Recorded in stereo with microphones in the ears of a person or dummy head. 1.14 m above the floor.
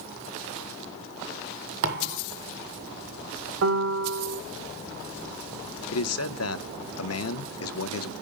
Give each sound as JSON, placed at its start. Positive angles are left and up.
{"t": 1.8, "sound": "a thud", "side_deg": -50, "distance_m": 1.5}
{"t": 3.6, "sound": "a piano", "side_deg": -65, "distance_m": 1.4}
{"t": 5.9, "sound": "a man speaking", "side_deg": 70, "distance_m": 0.9}